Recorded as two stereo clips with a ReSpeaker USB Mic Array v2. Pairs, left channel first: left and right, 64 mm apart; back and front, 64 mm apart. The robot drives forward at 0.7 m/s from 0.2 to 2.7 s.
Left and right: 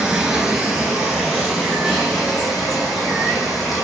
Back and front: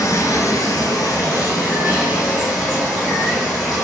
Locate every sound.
0.0 s running water: 165° right, 0.8 m; by 3.8 s 175° right, 2.5 m